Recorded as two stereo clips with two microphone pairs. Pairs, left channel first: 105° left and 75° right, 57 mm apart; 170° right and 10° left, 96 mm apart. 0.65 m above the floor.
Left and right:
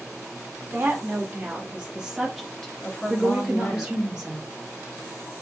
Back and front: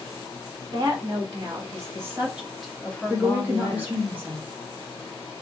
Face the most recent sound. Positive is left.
turn(degrees=-20)